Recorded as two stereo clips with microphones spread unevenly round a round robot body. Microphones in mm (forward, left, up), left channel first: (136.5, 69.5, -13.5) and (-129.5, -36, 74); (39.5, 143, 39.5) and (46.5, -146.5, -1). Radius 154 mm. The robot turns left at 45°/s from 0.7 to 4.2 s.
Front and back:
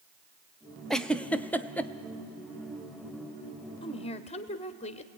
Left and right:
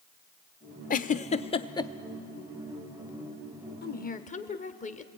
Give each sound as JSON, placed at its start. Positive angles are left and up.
{"t": 0.9, "sound": "a giggle", "azimuth_deg": 55, "distance_m": 0.6}
{"t": 3.8, "sound": "a woman speaking", "azimuth_deg": 45, "distance_m": 1.2}